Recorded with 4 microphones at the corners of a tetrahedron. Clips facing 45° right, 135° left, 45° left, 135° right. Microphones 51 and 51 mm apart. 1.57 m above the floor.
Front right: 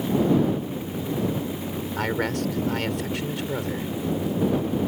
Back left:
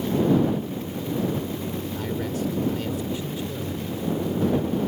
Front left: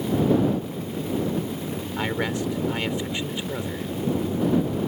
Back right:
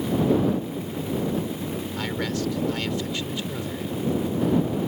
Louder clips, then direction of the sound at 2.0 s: Front right 5 dB, front left 3 dB; 25° right.